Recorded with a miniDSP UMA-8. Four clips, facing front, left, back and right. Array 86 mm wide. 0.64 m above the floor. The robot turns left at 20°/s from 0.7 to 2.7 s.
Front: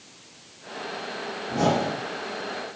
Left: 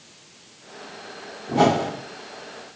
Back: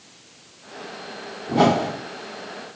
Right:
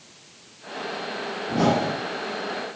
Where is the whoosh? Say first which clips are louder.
Left 3 dB, back 5 dB; 140° left, 1.4 m; by 1.9 s 135° left, 1.4 m.